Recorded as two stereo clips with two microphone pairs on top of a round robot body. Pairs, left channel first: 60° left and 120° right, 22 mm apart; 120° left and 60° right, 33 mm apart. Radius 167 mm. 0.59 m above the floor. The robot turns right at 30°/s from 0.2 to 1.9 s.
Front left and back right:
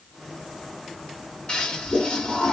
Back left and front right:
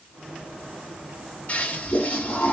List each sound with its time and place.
1.5 s a toilet flushing: 90° left, 3 m; by 2.5 s 100° left, 3 m